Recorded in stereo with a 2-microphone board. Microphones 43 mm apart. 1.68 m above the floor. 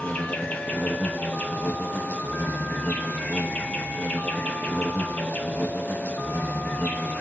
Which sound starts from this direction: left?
An insect, at 0.0 s.